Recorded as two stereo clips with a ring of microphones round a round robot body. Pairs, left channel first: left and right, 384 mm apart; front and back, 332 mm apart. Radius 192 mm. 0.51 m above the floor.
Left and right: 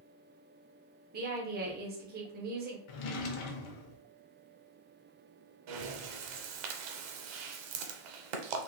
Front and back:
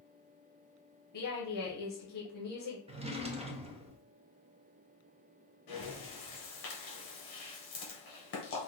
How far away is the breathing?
About 0.8 m.